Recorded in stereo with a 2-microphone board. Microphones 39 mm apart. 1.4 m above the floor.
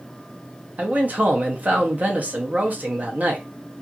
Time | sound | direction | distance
0.8 | a man speaking | 45° right (ahead or behind) | 0.7 m